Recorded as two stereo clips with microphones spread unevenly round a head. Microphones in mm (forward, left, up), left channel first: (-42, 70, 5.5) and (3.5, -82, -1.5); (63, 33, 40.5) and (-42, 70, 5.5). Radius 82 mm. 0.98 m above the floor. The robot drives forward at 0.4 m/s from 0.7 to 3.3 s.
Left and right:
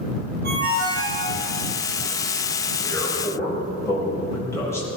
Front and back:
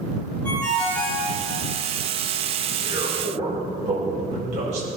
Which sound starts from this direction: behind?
A man speaking, at 2.8 s.